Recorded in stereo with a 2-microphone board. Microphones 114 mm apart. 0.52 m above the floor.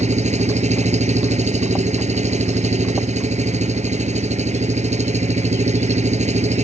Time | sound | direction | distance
0.0 | an engine running | 85° right | ?